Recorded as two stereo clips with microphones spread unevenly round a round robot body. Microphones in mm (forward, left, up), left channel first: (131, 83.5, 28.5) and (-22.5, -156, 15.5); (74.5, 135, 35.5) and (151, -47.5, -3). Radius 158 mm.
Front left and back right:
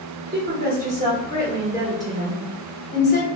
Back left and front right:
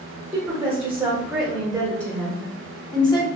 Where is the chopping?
I don't hear chopping.